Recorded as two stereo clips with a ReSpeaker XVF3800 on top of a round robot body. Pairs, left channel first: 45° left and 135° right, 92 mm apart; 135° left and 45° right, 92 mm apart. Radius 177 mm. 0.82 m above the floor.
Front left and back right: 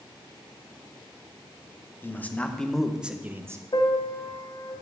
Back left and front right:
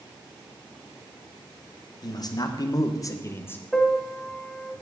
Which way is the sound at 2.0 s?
110° left.